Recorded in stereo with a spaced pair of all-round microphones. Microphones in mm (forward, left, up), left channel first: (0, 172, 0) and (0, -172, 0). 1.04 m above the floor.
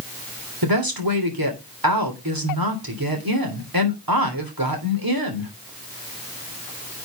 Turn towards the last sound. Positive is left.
turn(degrees=-85)